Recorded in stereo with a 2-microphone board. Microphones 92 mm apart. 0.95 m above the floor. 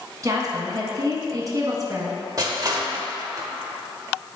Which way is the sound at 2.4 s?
40° right (ahead or behind).